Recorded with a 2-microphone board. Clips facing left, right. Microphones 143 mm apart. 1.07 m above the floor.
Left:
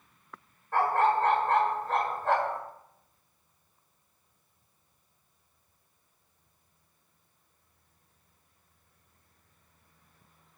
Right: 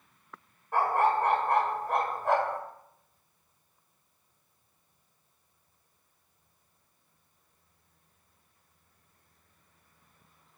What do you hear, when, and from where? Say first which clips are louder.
0.7 s a dog barking: left 1 dB; 15° right (ahead or behind), 1.8 m